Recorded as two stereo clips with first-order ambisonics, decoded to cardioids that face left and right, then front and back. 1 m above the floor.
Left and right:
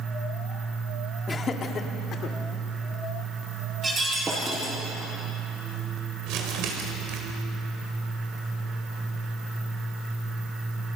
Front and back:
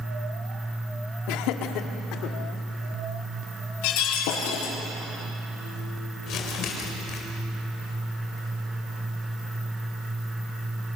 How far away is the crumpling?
About 4.5 m.